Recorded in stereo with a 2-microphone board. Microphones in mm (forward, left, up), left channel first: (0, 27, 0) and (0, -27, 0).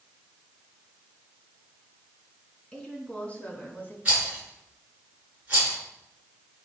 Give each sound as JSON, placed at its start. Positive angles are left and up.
{"t": 2.7, "sound": "a woman speaking", "side_deg": 15, "distance_m": 3.0}
{"t": 4.0, "sound": "a rattle", "side_deg": -25, "distance_m": 4.5}